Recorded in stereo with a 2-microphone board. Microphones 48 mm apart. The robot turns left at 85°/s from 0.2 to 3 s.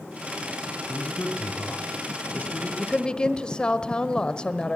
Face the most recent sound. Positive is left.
turn(degrees=25)  # may be behind; listen again after turning